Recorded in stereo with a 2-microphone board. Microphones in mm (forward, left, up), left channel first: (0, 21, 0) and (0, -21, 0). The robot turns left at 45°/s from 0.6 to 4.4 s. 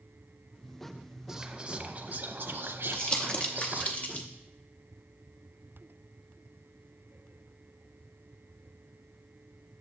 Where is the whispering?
15° right, 0.7 m; by 3.9 s 130° right, 0.7 m.